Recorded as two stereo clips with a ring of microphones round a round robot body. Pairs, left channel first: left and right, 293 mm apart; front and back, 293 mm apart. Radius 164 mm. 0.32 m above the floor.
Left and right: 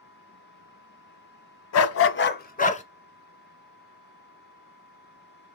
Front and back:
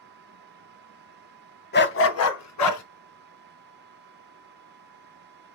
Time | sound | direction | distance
1.7 | a dog barking | 55° left | 1.1 m